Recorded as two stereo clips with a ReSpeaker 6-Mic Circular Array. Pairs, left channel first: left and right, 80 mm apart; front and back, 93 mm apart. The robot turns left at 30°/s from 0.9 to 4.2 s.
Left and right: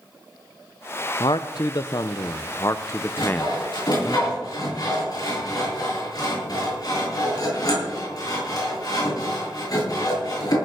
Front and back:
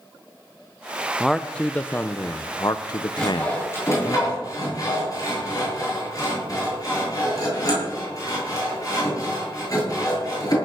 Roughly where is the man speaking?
Left.